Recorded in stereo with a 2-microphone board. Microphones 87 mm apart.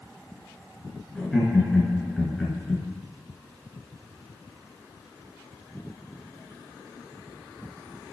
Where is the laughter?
Centre (ahead or behind), 3.5 m.